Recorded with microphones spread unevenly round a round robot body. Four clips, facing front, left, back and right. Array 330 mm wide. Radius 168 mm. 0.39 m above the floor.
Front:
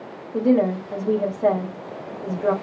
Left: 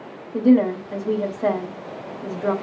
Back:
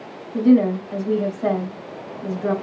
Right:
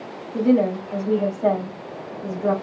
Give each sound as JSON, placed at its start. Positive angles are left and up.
{"t": 0.3, "sound": "a woman speaking", "azimuth_deg": 55, "distance_m": 1.2}